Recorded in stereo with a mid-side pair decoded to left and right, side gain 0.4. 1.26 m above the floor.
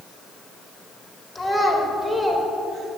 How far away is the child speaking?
About 3.5 m.